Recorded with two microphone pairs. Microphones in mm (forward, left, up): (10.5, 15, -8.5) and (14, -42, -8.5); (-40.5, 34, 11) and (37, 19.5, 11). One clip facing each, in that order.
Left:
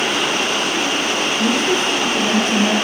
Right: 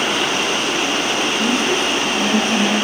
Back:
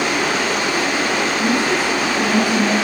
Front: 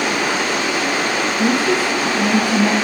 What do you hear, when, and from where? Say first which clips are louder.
1.4 s a woman speaking: left 2 dB, front 4 dB; 35° left, 8.5 m; by 2.7 s 45° left, 8 m